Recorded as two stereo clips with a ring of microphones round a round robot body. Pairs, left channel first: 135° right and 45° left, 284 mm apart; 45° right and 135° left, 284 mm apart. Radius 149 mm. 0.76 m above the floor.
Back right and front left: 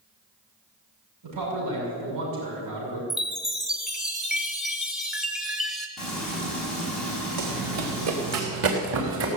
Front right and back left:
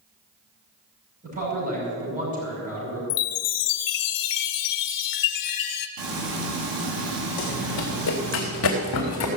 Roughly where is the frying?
Behind left.